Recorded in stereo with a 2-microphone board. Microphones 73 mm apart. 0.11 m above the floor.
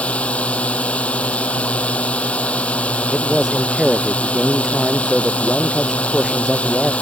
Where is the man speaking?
5° right (ahead or behind).